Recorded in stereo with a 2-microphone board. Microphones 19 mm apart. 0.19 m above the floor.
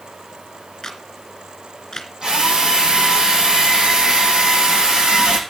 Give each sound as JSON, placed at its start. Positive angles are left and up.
{"t": 0.8, "sound": "a camera shutter", "side_deg": 35, "distance_m": 2.5}
{"t": 2.2, "sound": "a drill", "side_deg": -35, "distance_m": 4.0}